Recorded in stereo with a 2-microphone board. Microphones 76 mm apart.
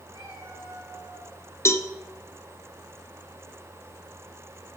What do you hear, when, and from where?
0.1 s a cat meowing: 85° right, 7.5 m; by 1.4 s 80° right, 6.5 m
1.6 s a cowbell: 35° left (ahead or behind), 1.2 m